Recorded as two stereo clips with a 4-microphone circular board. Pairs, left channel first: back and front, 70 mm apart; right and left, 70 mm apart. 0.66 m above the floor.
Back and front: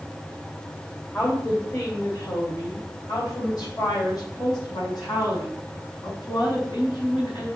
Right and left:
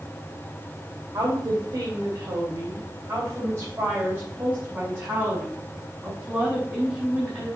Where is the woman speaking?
130° left, 3 m; by 7.5 s 175° left, 5.5 m.